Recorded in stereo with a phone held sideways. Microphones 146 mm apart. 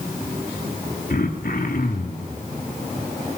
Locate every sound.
1.1 s throat clearing: 75° left (ahead or behind), 3 m